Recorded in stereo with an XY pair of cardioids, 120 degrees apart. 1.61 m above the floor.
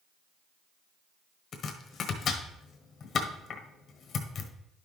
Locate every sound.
1.5 s chopping: 45° left, 1.2 m